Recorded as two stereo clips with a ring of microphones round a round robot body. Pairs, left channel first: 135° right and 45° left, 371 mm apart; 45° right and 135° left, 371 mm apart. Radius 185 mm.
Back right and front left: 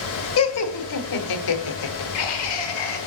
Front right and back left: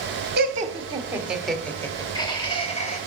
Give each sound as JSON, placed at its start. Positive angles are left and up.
{"t": 0.4, "sound": "laughter", "azimuth_deg": -170, "distance_m": 0.9}